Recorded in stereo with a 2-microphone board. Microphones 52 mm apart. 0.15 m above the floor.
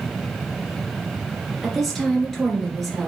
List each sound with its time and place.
1.6 s a woman speaking: centre (ahead or behind), 2.0 m